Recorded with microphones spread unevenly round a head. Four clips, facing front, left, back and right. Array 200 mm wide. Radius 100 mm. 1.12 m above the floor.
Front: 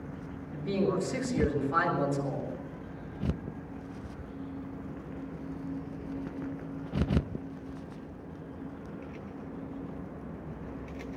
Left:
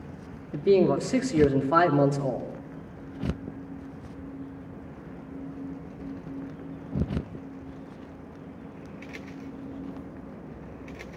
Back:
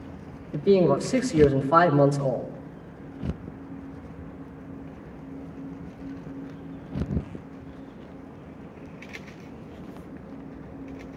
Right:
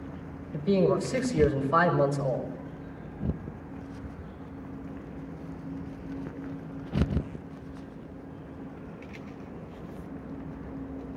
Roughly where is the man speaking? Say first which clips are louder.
Left 4 dB, back 10 dB; behind left.